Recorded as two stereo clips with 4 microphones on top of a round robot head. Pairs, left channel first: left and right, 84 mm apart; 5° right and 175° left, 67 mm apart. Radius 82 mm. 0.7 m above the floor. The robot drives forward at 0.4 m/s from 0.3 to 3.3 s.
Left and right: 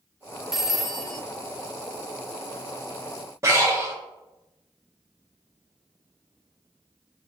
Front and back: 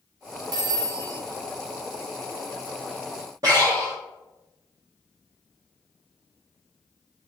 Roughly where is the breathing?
Behind right.